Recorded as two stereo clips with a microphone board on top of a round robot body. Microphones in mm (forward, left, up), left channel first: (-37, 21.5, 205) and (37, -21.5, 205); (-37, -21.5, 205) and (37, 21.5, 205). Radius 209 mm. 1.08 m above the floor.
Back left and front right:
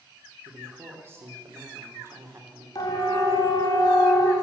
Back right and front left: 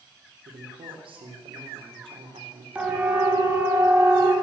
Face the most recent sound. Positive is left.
turn(degrees=90)